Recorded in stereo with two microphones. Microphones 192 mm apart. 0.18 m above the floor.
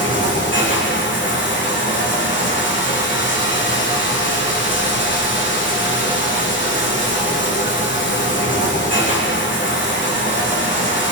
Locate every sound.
0.0 s running water: 80° left, 5.5 m